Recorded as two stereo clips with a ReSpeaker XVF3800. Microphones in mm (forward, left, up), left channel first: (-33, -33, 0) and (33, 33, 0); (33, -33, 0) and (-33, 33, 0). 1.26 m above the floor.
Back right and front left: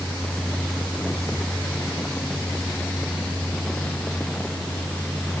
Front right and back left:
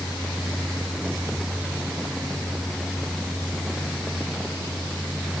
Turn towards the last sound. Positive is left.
No sound to turn to.